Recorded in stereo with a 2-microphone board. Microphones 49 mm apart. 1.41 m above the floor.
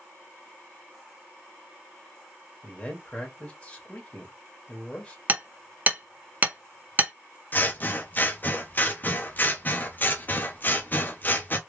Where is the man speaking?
20° left (ahead or behind), 1.5 m.